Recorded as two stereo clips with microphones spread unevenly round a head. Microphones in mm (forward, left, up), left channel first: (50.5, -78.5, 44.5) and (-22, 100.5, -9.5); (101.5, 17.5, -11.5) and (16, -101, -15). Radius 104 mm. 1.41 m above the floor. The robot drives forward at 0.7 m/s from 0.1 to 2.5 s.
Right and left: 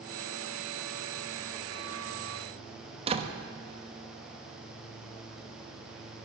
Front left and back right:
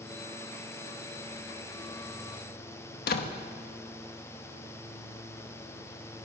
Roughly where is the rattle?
I don't hear a rattle.